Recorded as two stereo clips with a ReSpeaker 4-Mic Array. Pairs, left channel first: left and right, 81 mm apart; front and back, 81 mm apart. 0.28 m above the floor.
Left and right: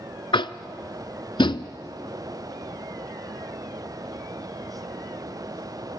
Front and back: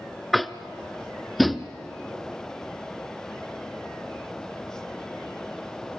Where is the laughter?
No laughter in this recording.